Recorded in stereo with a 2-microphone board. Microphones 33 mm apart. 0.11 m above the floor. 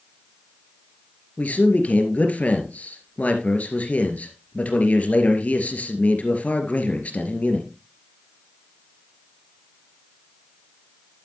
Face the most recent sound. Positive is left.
turn(degrees=45)  # may be behind; listen again after turning